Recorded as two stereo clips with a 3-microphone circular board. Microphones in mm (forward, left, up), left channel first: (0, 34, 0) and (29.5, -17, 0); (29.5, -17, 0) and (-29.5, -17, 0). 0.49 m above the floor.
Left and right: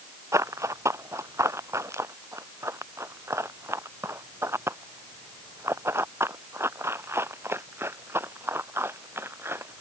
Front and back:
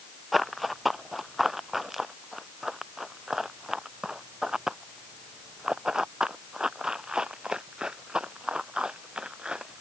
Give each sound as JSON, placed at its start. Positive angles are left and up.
{"t": 0.3, "sound": "running footsteps", "azimuth_deg": -90}